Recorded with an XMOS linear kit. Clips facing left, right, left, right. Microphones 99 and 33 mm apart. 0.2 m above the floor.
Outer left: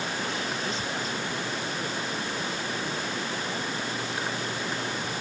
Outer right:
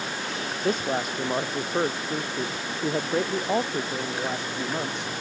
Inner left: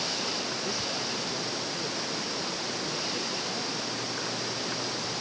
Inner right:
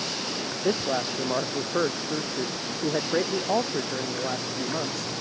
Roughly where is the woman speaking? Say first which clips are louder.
Outer right 6 dB, inner right 6 dB; right.